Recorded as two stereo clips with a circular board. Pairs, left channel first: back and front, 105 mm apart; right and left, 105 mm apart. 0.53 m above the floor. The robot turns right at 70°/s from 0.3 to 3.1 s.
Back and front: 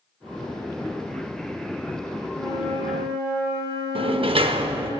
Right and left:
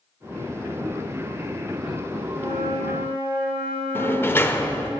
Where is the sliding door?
25° right, 0.7 m.